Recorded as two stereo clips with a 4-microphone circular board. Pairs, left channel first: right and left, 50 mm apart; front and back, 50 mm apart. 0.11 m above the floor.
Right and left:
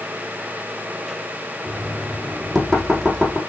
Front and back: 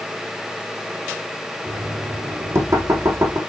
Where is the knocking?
Straight behind, 4.5 m.